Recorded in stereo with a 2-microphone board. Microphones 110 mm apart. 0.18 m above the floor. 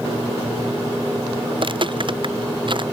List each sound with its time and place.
1.5 s footsteps: 50° right (ahead or behind); by 2.8 s 45° right (ahead or behind)